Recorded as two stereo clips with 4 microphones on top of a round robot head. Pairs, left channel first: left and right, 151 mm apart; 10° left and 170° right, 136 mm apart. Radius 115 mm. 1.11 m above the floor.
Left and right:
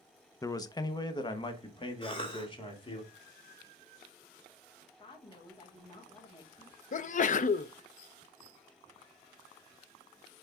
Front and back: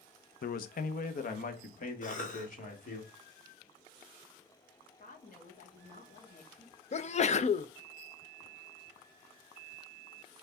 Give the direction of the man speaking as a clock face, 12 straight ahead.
11 o'clock.